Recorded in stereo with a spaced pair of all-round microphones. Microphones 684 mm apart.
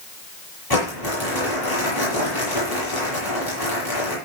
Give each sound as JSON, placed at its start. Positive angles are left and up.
{"t": 0.7, "sound": "crumpling", "side_deg": 30, "distance_m": 9.0}